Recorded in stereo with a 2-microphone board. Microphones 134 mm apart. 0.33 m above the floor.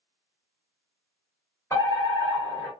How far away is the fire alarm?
About 1.9 m.